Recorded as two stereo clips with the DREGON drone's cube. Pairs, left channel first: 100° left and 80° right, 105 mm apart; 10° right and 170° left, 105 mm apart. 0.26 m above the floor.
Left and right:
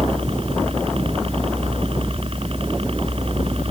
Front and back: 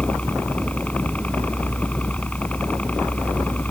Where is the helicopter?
85° right.